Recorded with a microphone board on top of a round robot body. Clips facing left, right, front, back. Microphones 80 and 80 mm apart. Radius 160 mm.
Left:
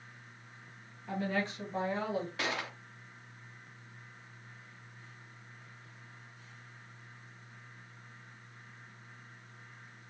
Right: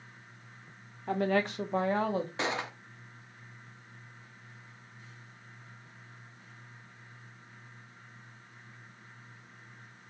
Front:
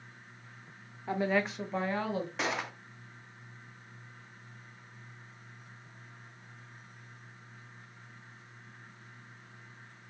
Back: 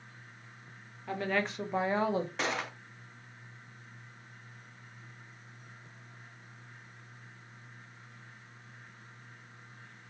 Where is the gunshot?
85° right, 0.7 m.